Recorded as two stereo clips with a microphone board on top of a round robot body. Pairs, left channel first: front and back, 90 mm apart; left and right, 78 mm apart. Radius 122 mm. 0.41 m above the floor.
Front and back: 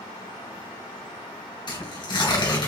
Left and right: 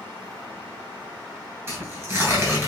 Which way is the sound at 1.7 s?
30° right.